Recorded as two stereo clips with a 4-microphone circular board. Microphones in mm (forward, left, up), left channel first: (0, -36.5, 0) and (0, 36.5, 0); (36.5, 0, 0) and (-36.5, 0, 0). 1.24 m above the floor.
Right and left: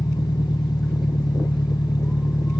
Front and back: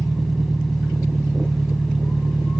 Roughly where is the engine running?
Right.